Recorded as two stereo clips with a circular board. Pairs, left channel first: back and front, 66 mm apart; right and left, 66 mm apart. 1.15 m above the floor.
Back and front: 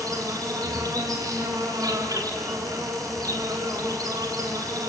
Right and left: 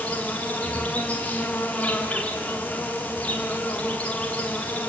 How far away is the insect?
About 3.5 m.